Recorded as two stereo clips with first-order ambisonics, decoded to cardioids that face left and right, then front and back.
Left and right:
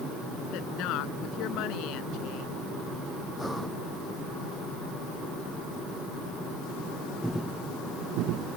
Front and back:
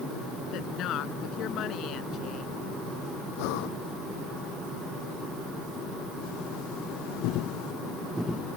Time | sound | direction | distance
0.5 | a woman speaking | 50° left | ?
3.4 | breathing | straight ahead | ?